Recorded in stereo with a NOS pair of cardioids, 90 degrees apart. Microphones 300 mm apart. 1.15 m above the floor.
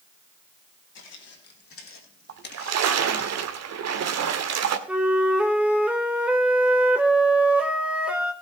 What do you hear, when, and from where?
0.9 s footsteps: 60° left, 4.5 m; by 3.3 s 20° left, 3.5 m
2.3 s a splash: 60° right, 2.0 m
4.9 s a flute: 5° right, 2.5 m